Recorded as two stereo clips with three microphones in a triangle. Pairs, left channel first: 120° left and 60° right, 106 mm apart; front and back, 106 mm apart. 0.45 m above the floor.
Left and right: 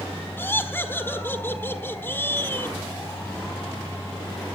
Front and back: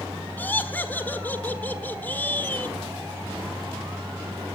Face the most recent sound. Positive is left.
turn(degrees=60)